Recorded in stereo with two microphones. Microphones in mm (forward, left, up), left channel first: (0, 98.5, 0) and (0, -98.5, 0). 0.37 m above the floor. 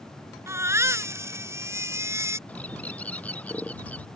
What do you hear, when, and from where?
0.5 s a baby crying: 15° right (ahead or behind)
2.5 s a bird: 5° left (ahead or behind)